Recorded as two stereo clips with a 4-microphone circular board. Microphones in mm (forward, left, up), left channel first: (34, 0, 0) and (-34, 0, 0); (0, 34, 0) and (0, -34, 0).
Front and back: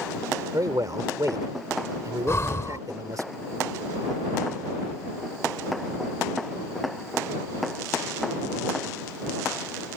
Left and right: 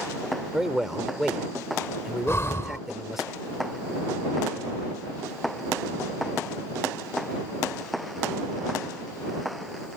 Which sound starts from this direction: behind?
A man speaking, at 0.5 s.